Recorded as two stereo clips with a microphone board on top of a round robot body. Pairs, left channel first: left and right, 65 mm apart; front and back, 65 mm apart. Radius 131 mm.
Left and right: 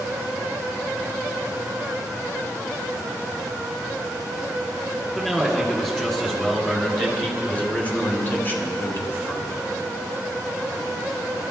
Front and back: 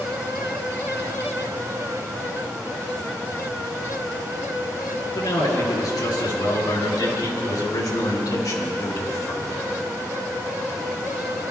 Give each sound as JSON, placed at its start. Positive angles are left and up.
{"t": 5.2, "sound": "a man speaking", "azimuth_deg": 5, "distance_m": 4.5}